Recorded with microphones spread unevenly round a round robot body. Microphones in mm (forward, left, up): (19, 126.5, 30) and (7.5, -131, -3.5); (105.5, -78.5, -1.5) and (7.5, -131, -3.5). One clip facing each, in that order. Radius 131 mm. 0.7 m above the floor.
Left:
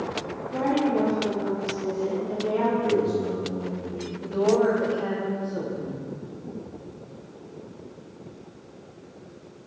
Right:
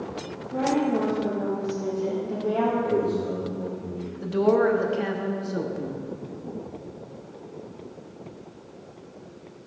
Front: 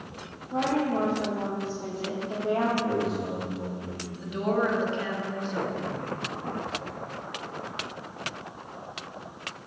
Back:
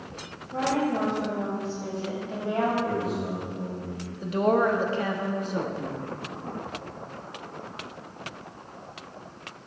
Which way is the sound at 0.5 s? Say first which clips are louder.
Even, even; 5° left.